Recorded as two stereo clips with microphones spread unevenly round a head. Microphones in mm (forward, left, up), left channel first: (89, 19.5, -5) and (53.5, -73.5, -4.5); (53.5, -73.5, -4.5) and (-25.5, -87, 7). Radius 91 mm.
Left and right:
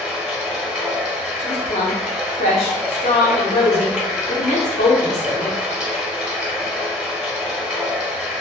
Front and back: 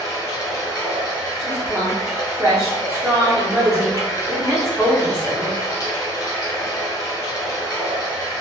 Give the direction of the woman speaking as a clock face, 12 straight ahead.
8 o'clock.